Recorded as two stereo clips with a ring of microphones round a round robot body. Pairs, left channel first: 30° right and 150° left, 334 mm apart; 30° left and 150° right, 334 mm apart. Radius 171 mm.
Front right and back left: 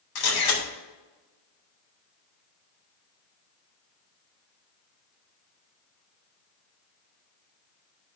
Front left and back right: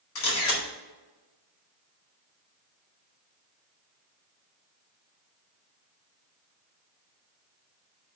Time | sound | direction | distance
0.1 | a camera shutter | 20° right | 2.0 m